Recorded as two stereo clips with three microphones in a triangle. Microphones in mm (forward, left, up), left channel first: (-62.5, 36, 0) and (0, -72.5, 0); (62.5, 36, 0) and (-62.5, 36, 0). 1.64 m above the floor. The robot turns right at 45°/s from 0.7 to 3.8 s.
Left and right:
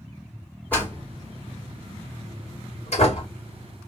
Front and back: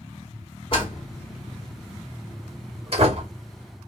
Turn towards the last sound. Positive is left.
turn(degrees=180)